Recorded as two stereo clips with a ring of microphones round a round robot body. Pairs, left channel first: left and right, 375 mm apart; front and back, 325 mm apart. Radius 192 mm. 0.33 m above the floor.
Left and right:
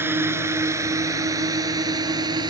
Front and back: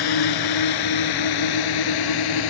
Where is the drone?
5° right; by 2.5 s 10° right.